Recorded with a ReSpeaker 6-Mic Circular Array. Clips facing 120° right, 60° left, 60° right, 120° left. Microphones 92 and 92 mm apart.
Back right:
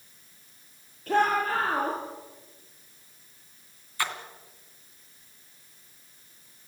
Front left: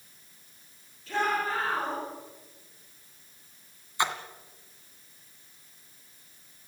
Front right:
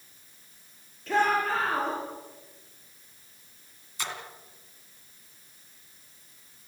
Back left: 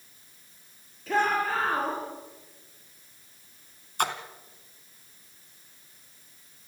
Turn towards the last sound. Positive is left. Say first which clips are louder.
# front left 3 dB, back left 8 dB
turn(degrees=125)